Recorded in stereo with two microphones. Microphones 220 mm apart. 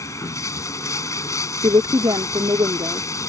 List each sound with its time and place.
0.0 s running water: 15° left (ahead or behind)
1.6 s a woman speaking: 20° right (ahead or behind)